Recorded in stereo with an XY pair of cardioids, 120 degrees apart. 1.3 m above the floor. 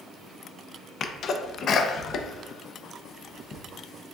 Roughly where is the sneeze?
Ahead left.